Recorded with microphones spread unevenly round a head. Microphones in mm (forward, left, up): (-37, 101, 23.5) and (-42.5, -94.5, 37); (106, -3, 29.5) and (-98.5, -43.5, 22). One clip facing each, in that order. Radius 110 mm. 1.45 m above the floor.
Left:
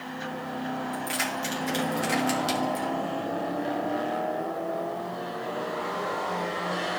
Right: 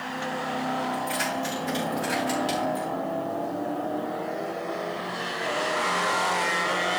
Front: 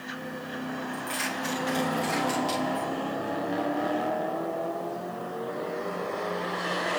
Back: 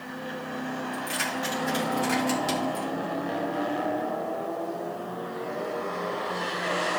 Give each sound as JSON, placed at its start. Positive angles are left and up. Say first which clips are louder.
{"t": 0.9, "sound": "keys jangling", "louder": "right 3 dB, back 1 dB", "azimuth_deg": 110, "distance_m": 4.0}